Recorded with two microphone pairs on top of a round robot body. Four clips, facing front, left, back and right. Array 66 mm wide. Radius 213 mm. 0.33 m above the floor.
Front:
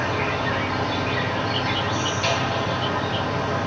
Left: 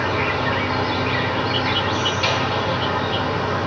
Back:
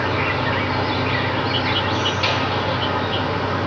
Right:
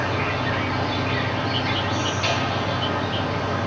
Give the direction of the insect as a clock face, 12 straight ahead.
7 o'clock.